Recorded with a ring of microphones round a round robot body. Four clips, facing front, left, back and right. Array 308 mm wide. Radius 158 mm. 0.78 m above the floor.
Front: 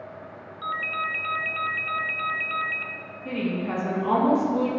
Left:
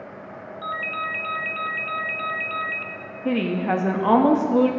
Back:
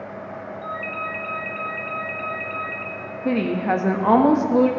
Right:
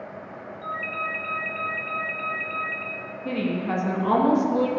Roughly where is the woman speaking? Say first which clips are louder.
Left 4 dB, back 7 dB; behind left.